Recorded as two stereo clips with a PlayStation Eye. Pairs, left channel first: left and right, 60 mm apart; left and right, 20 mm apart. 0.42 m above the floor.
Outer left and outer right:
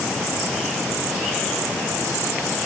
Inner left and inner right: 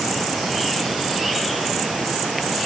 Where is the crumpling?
I don't hear crumpling.